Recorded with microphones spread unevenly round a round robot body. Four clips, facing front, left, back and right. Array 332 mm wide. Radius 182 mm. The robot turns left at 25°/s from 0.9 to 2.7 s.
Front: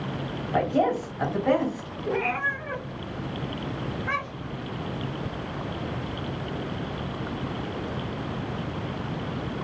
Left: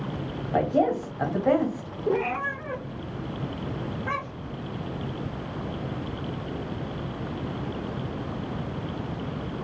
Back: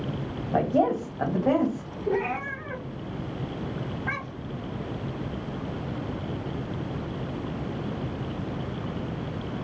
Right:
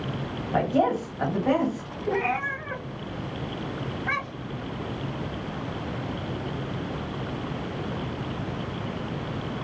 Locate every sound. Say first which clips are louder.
0.5 s a woman speaking: even, even; 155° left, 1.2 m; by 1.9 s 130° left, 1.2 m
2.1 s a cat meowing: left 1 dB, even; 130° left, 0.8 m; by 4.6 s 115° left, 0.8 m